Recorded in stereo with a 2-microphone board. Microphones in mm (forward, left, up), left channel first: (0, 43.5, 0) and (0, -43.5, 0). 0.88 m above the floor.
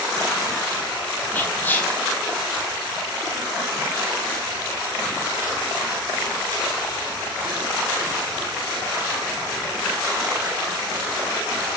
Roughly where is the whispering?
Left.